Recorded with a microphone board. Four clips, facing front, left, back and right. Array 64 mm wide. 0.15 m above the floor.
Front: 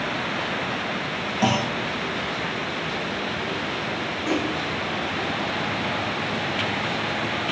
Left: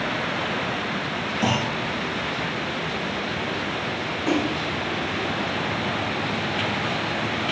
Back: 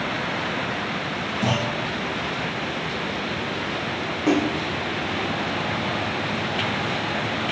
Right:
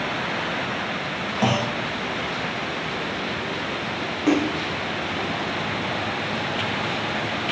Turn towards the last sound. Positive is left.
turn(degrees=-140)